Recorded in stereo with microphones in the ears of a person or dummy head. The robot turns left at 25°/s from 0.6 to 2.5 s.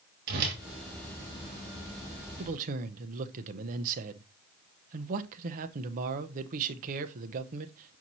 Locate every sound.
0.3 s a whoosh: 50° right (ahead or behind), 2.5 m
2.4 s a man speaking: 40° right (ahead or behind), 0.8 m; by 8.0 s 45° right (ahead or behind), 0.8 m